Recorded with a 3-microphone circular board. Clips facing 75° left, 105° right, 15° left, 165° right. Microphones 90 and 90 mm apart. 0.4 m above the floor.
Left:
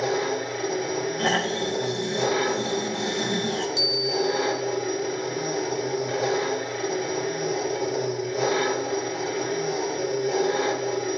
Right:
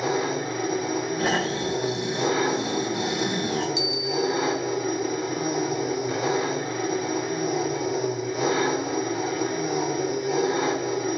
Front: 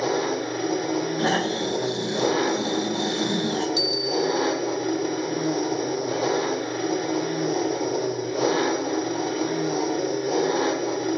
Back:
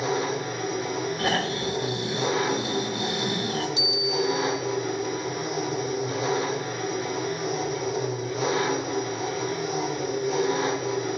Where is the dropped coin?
No dropped coin in this recording.